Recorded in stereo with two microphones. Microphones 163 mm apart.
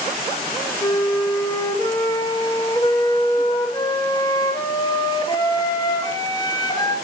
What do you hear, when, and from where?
0.8 s a flute: 25° left (ahead or behind), 0.6 m